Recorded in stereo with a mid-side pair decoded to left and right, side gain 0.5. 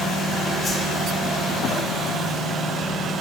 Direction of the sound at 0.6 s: 35° left.